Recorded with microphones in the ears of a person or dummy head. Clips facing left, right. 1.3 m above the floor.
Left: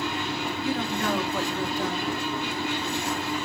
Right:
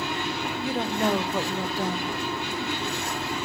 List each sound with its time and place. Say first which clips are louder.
0.6 s a woman speaking: right 3 dB; 20° right (ahead or behind), 1.2 m